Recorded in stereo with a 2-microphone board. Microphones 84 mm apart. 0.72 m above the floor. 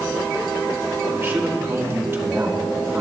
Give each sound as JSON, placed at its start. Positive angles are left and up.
{"t": 1.1, "sound": "a man speaking", "side_deg": -30, "distance_m": 1.7}